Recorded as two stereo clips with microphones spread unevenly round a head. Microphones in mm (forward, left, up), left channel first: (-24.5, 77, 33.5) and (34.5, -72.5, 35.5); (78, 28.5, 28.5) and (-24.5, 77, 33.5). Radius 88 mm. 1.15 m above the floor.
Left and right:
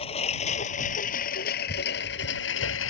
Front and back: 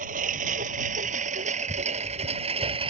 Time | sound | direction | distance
0.0 | a lawn mower | 170° left | ?